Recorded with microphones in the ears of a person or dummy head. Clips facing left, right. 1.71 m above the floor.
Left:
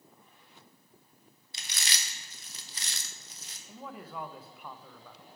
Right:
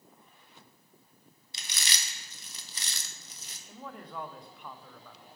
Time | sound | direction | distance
1.5 | chewing | 80° right | 0.9 m
3.7 | a man speaking | 5° left (ahead or behind) | 0.6 m